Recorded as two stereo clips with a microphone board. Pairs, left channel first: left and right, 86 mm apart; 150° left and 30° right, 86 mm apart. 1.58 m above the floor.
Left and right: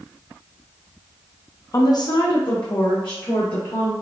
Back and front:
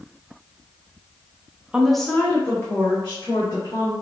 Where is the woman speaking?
45° left, 0.6 m; by 3.9 s 105° left, 2 m.